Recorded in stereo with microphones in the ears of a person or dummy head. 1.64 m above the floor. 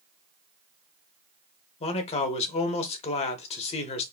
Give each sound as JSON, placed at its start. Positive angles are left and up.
{"t": 1.8, "sound": "a man speaking", "side_deg": 35, "distance_m": 0.8}